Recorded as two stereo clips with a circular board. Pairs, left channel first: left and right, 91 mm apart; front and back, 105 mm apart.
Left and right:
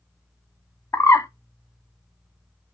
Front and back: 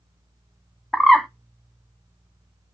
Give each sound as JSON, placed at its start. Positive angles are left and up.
{"t": 0.9, "sound": "a bird", "azimuth_deg": 85, "distance_m": 0.5}